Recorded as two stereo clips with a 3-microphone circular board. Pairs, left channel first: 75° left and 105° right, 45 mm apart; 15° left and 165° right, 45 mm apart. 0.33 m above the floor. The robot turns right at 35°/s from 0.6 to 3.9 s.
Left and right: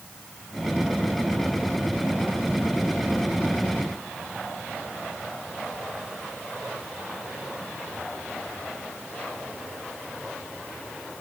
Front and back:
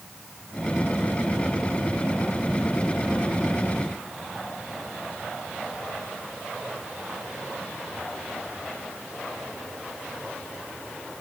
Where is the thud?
No thud in this recording.